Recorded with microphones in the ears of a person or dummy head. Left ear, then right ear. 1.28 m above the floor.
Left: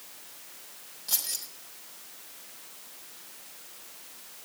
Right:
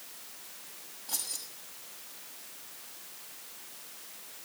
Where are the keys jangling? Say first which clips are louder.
Left 5 dB; 75° left (ahead or behind), 4 m.